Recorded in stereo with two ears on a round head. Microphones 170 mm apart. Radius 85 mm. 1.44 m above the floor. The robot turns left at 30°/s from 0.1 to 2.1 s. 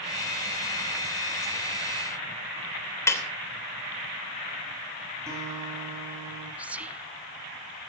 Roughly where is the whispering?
Centre.